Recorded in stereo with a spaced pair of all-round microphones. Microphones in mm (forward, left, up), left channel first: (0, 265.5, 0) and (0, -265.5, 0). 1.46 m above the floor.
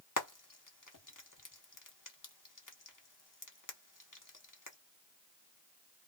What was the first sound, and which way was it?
Frying, 35° left (ahead or behind).